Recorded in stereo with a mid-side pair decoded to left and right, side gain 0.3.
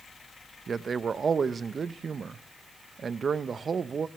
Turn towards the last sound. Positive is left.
turn(degrees=-60)